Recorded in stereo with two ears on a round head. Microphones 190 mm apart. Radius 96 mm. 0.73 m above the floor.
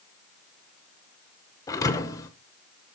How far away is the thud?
About 0.7 m.